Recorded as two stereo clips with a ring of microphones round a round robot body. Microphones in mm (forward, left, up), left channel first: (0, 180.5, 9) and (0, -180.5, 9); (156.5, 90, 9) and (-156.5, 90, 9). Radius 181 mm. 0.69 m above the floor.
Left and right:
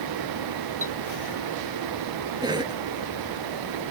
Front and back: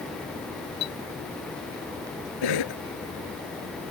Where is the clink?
5° left.